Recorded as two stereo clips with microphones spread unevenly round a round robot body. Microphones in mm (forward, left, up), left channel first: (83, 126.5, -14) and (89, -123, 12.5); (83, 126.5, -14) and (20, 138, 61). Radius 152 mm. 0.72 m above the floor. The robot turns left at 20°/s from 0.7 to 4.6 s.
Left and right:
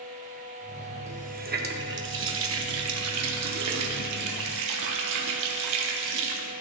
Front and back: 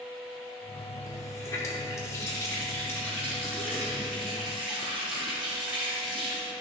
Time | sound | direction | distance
1.1 | a running tap | 25° right | 0.9 m